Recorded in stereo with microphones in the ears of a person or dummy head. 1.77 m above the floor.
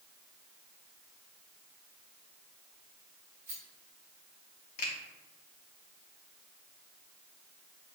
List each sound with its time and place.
3.5 s a rattle: 20° right (ahead or behind), 1.7 m
4.8 s a finger snap: 45° left (ahead or behind), 0.8 m